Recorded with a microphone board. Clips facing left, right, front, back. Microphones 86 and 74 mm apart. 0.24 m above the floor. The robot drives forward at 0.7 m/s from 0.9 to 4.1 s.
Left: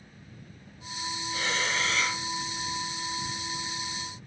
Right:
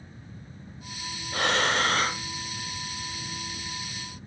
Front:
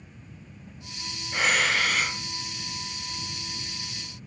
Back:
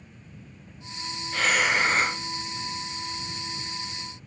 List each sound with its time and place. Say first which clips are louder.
1.3 s breathing: right 6 dB, back 1 dB; 75° right, 0.6 m; by 2.2 s 135° right, 0.8 m